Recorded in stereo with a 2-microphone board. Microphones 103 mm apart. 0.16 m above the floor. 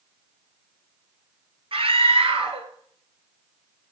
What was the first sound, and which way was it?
A scream, 60° right (ahead or behind).